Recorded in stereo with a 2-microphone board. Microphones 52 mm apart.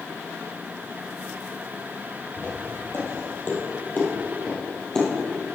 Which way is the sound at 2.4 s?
55° left (ahead or behind).